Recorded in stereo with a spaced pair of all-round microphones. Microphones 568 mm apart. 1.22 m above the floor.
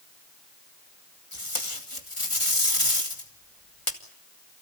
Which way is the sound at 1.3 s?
60° left (ahead or behind).